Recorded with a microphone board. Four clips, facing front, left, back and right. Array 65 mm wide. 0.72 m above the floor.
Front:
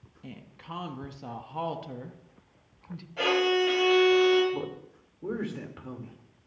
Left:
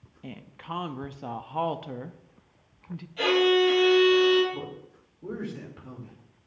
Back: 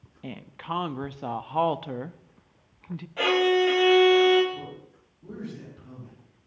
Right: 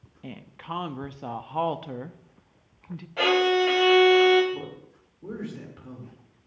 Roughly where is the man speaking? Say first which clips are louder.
Right 1 dB, front 4 dB; ahead.